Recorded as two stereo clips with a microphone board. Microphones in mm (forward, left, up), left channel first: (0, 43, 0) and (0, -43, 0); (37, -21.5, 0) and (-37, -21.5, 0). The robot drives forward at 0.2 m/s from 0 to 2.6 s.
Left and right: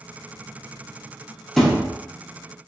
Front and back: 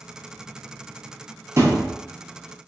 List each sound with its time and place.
1.6 s a thud: 175° left, 1.0 m